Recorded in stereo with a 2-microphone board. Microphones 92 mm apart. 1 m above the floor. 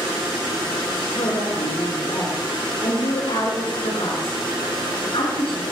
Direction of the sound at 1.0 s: 75° left (ahead or behind).